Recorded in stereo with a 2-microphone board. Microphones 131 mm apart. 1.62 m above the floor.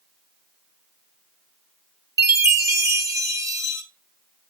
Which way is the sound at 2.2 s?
25° right (ahead or behind).